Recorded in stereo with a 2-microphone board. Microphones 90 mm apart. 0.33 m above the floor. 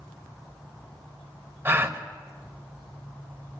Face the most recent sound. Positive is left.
turn(degrees=-25)  # may be behind; listen again after turning